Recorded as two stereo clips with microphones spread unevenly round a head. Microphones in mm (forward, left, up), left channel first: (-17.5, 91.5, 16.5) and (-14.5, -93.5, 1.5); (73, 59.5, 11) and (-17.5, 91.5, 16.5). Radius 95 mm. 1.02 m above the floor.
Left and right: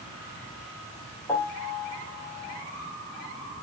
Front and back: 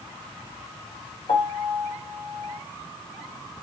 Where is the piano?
15° left, 3.5 m.